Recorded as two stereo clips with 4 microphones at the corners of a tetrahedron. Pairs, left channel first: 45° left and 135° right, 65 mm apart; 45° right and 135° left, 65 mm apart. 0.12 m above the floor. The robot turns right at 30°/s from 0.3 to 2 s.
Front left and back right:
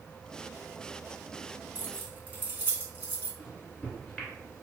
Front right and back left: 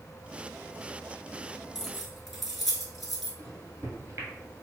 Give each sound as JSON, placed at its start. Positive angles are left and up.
{"t": 1.8, "sound": "keys jangling", "azimuth_deg": -145, "distance_m": 0.8}
{"t": 3.4, "sound": "a microwave", "azimuth_deg": 125, "distance_m": 1.2}